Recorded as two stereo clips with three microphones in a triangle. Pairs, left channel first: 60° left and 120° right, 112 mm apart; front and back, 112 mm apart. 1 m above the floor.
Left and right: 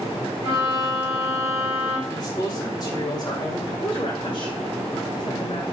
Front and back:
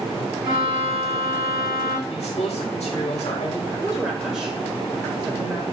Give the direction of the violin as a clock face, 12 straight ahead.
9 o'clock.